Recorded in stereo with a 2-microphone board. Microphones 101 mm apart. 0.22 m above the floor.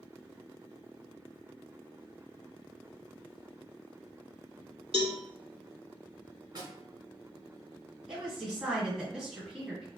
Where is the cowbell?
70° right (ahead or behind), 0.9 m.